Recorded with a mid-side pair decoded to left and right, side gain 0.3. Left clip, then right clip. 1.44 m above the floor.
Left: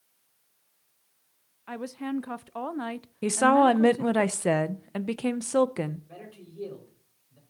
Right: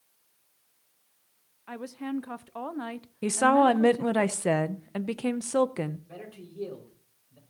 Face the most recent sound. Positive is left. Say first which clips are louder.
# right 2 dB
turn(degrees=-10)